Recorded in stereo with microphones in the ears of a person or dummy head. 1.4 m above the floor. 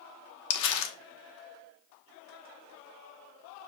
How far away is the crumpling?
About 1.1 m.